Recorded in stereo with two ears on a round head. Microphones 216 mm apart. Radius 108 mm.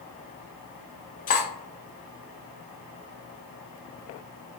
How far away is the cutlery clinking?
About 0.7 m.